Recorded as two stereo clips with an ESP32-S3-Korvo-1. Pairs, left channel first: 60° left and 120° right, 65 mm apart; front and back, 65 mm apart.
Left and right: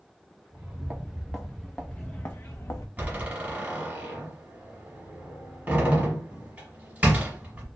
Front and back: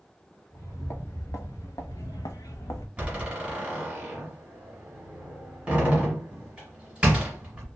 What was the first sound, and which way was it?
Footsteps, 45° right.